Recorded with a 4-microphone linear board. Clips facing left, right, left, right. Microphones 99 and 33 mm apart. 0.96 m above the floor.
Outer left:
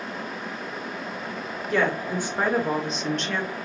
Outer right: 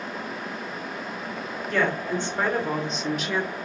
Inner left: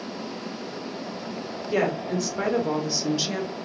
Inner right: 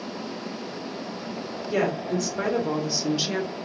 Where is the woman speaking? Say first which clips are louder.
Outer left 1 dB, even; 15° left (ahead or behind), 1.4 m; by 3.6 s 20° right (ahead or behind), 0.5 m.